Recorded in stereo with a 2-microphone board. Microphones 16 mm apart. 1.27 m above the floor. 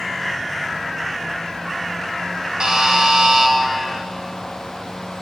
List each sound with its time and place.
2.6 s a buzzer: 65° right (ahead or behind), 1.5 m